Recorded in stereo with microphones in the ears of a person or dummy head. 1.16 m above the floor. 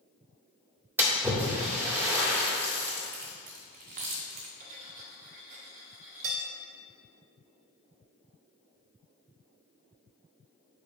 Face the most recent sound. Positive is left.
turn(degrees=-45)  # may be behind; listen again after turning